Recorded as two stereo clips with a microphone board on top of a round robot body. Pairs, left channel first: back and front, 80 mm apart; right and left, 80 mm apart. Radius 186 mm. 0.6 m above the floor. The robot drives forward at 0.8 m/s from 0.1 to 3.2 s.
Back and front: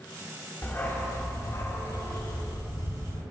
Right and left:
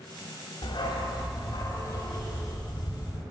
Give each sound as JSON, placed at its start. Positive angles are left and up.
{"t": 0.6, "sound": "a dog barking", "azimuth_deg": -115, "distance_m": 2.0}